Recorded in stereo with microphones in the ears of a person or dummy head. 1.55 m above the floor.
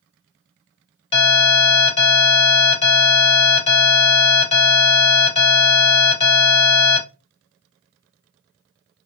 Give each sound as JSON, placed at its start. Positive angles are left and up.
{"t": 1.1, "sound": "an alarm", "side_deg": 30, "distance_m": 2.0}